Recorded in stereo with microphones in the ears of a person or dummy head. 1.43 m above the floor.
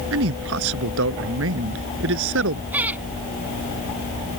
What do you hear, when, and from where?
0.1 s a man speaking: 85° right
2.7 s laughter: 10° right (ahead or behind)